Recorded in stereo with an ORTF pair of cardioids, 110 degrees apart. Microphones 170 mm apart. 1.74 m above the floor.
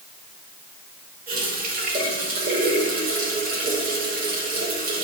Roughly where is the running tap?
Ahead right.